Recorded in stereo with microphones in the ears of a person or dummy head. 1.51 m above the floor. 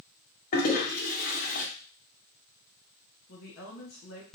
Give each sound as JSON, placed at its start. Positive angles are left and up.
{"t": 0.5, "sound": "a toilet flushing", "side_deg": 50, "distance_m": 0.7}
{"t": 3.3, "sound": "a woman speaking", "side_deg": 75, "distance_m": 1.3}